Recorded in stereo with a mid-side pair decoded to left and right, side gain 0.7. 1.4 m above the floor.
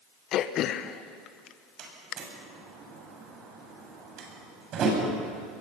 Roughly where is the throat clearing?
Ahead left.